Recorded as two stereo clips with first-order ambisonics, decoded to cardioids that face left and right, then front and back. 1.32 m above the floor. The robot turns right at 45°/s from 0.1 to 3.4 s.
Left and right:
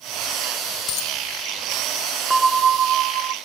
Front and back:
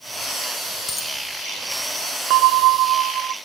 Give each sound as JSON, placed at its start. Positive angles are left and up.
{"t": 0.9, "sound": "a dropped coin", "azimuth_deg": 70, "distance_m": 4.0}
{"t": 2.3, "sound": "a bell", "azimuth_deg": -170, "distance_m": 0.7}